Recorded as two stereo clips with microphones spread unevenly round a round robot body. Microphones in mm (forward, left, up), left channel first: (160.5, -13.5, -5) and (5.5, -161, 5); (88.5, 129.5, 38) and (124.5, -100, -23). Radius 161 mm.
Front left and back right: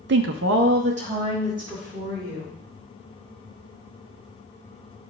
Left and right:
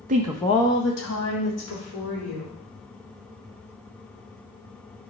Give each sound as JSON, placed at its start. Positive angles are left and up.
{"t": 0.1, "sound": "a woman speaking", "azimuth_deg": -110, "distance_m": 0.5}